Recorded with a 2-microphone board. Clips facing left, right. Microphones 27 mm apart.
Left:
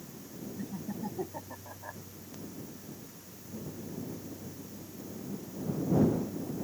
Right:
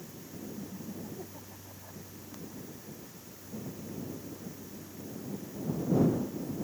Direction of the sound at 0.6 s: 50° left (ahead or behind).